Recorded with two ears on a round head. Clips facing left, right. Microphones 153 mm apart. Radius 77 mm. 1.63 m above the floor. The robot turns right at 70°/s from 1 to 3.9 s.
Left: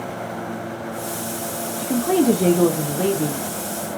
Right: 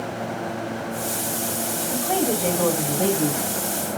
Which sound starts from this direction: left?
A woman speaking, at 1.8 s.